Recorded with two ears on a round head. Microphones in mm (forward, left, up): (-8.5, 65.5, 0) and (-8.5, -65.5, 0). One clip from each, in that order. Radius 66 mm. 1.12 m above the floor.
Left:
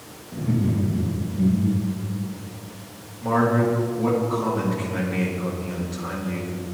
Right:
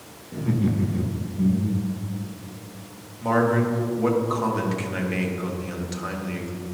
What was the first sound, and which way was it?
Laughter, 70° right (ahead or behind).